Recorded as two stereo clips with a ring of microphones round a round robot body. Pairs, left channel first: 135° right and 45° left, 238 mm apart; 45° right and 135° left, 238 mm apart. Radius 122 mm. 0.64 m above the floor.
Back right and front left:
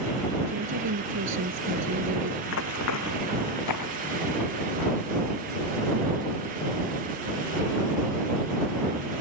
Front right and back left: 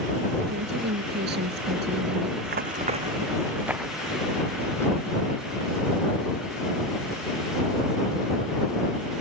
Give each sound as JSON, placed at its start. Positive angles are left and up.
{"t": 0.5, "sound": "a woman speaking", "azimuth_deg": 85}
{"t": 2.4, "sound": "running footsteps", "azimuth_deg": -175}